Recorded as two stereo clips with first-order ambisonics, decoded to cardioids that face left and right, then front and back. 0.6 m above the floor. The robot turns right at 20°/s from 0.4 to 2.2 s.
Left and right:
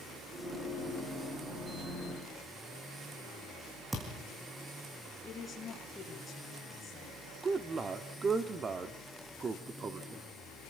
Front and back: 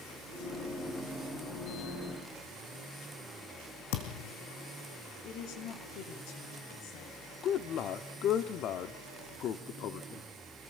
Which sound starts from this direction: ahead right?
A man speaking, at 7.4 s.